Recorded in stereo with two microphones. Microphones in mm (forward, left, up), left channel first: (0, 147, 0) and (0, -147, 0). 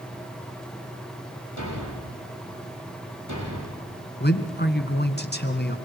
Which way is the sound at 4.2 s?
35° left (ahead or behind).